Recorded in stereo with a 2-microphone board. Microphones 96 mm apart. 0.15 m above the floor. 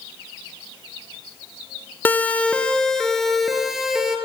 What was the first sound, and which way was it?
A siren, 20° left (ahead or behind).